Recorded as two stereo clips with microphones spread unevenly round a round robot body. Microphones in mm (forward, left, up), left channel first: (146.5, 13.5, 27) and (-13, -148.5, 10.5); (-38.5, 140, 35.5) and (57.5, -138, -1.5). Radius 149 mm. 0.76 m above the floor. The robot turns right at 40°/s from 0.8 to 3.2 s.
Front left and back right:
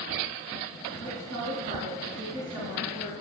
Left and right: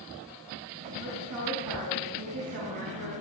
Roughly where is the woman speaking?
Behind right.